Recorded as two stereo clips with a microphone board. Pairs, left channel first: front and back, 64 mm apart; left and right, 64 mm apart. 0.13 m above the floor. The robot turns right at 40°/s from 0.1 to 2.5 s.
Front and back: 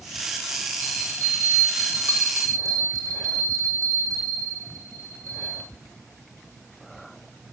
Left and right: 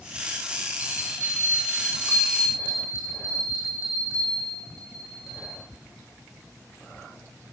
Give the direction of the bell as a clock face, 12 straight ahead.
8 o'clock.